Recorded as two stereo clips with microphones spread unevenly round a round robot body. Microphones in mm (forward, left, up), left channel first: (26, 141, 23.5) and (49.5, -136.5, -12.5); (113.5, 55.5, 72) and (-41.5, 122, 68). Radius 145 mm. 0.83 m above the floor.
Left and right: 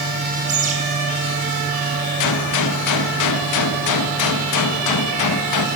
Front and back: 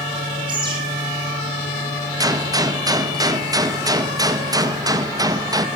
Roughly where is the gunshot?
Left.